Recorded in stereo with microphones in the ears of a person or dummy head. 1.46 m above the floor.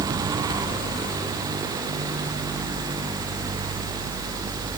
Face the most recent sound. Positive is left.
No sound to turn to.